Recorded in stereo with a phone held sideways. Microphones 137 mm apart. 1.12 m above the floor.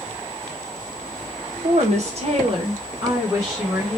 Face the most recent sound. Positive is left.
turn(degrees=-15)  # may be behind; listen again after turning